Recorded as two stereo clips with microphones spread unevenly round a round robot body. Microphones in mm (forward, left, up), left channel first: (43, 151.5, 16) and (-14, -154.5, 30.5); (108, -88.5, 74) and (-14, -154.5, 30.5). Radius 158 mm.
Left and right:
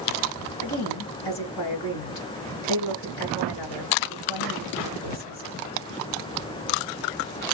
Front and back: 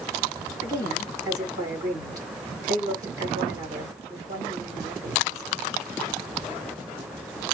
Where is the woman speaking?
70° left, 5 m.